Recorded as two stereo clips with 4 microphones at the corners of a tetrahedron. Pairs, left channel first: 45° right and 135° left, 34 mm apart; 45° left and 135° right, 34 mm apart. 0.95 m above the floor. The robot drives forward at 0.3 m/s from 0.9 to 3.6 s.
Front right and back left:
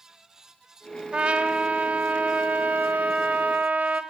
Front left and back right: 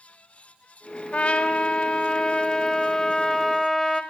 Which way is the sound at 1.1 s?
90° left.